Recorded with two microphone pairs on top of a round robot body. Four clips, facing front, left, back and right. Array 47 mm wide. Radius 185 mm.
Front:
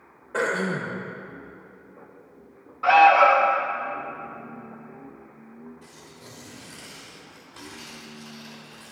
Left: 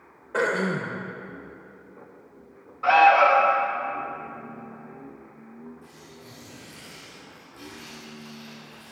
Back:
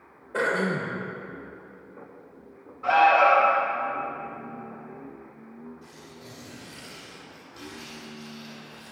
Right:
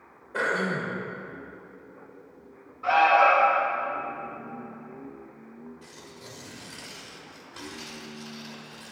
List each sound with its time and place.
0.3 s throat clearing: 55° left, 0.8 m
2.8 s an alarm: 30° left, 1.4 m
5.8 s tearing paper: 55° right, 5 m